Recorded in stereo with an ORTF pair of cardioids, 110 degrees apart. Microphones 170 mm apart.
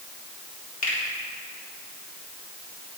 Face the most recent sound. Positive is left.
turn(degrees=50)